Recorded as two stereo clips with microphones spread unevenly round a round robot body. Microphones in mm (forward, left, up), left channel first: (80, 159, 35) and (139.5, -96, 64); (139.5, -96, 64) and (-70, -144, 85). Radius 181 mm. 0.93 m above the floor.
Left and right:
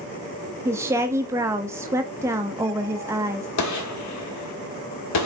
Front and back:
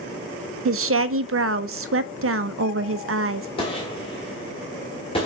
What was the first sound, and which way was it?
A woman speaking, 160° right.